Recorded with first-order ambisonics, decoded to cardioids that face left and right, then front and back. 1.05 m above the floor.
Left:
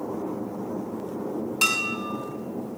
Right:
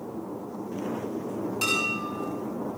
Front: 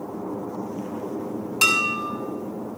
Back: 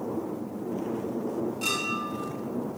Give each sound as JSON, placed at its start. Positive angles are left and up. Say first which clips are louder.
{"t": 1.6, "sound": "dishes clattering", "louder": "left 3 dB, front 11 dB", "azimuth_deg": 25, "distance_m": 5.5}